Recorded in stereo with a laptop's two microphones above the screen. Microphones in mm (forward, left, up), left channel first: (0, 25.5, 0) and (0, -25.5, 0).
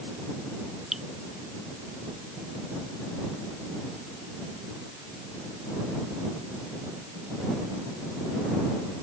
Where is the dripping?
5° right (ahead or behind).